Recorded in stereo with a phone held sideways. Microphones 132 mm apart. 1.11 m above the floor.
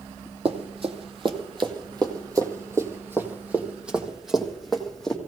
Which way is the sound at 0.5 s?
50° right (ahead or behind).